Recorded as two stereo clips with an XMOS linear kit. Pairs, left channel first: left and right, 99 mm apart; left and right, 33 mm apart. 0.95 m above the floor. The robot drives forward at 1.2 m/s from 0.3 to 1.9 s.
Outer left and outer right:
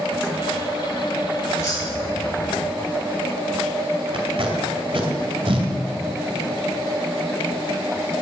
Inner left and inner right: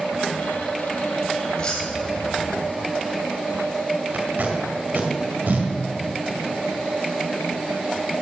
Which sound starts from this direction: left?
Keys jangling, at 1.6 s.